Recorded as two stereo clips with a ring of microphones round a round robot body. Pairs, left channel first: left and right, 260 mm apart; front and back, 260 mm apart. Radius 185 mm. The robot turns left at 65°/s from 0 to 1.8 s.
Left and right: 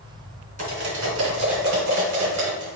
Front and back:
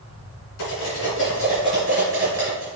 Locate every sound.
0.6 s cutlery clinking: 30° right, 2.5 m; by 2.8 s 110° right, 2.5 m